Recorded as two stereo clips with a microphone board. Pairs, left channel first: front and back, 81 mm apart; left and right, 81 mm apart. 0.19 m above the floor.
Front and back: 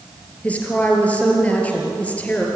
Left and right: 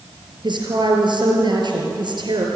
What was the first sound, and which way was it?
A woman speaking, 75° right.